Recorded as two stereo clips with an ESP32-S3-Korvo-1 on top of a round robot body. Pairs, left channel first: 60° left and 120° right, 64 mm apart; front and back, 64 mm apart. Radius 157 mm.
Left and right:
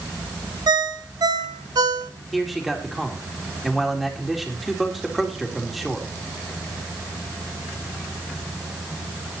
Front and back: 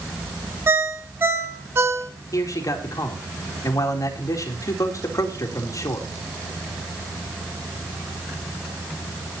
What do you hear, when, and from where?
0.7 s a ringtone: 125° right, 2.0 m
2.3 s a man speaking: 35° right, 3.5 m